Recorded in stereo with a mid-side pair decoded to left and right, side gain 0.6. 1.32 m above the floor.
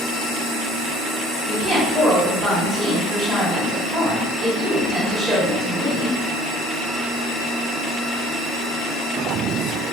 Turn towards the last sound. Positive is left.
turn(degrees=-20)